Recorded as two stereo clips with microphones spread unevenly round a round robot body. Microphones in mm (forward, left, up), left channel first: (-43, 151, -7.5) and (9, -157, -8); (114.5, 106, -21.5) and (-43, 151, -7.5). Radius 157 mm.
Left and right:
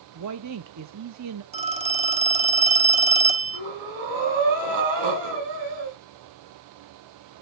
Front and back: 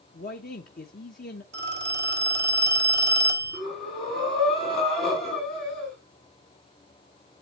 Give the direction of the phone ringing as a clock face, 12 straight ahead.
5 o'clock.